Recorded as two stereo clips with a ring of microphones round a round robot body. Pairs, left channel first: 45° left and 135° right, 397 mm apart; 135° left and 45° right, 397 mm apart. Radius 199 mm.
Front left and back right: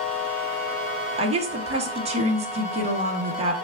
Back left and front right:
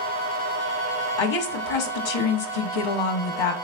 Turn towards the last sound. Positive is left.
turn(degrees=150)